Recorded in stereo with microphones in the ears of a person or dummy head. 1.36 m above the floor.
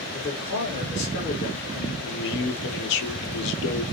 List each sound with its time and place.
0.1 s a man speaking: 50° left (ahead or behind), 1.9 m
2.0 s a man speaking: 60° left (ahead or behind), 0.9 m